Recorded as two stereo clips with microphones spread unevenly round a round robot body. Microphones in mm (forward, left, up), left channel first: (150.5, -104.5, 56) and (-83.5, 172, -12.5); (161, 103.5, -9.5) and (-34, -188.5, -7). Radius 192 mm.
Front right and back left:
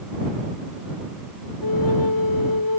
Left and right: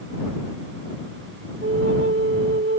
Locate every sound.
1.6 s a flute: 75° right